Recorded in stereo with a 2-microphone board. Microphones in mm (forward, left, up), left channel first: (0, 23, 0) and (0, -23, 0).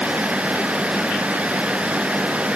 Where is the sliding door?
No sliding door in this recording.